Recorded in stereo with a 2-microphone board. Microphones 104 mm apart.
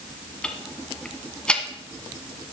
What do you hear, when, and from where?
0.4 s ticking: 10° left (ahead or behind), 1.3 m